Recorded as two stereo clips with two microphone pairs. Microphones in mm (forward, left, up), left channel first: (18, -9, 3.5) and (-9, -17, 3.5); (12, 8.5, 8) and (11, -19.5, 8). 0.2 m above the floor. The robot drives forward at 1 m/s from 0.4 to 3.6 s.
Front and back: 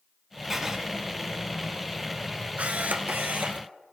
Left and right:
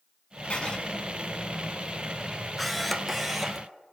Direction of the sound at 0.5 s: 115° left.